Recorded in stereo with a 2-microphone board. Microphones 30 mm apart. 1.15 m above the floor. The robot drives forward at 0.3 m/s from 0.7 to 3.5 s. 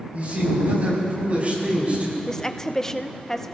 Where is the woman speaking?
20° left (ahead or behind), 0.7 m; by 3.5 s 15° left (ahead or behind), 1.0 m.